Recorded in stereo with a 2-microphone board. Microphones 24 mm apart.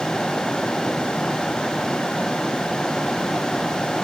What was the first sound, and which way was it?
Only background noise.